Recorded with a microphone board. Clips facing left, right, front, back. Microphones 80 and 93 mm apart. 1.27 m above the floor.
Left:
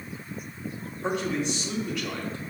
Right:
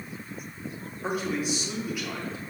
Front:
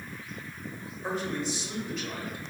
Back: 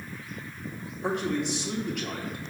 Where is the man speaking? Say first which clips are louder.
Left 1 dB, back 4 dB; 170° right, 1.4 m.